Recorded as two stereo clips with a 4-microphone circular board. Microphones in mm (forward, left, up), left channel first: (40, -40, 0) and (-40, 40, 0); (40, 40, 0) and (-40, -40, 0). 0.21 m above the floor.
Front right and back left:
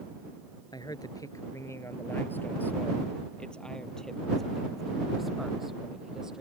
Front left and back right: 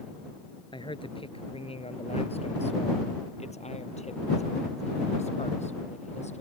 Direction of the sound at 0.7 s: 5° left.